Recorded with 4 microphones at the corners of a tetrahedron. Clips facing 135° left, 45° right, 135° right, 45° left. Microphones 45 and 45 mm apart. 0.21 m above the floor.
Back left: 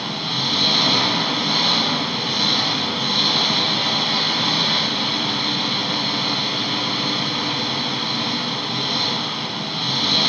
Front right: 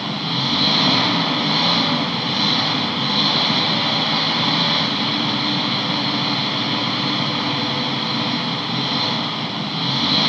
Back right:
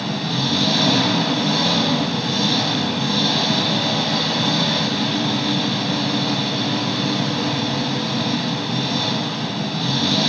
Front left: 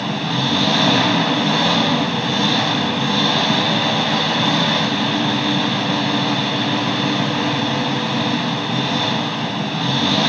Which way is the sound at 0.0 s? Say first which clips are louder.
Front right 2 dB, front left 2 dB; 25° left.